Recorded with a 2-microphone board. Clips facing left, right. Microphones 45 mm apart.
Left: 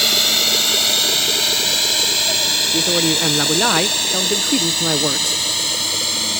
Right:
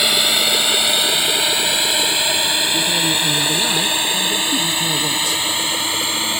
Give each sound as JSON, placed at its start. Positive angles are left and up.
{"t": 0.0, "sound": "a drone", "side_deg": -15}
{"t": 2.7, "sound": "a man speaking", "side_deg": 50}